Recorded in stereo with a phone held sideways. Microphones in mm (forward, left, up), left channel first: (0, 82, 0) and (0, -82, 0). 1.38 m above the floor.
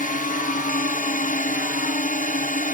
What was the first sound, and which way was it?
A drone, 55° left (ahead or behind).